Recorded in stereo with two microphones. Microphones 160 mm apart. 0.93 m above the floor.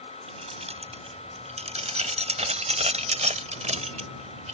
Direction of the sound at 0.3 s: 45° right (ahead or behind).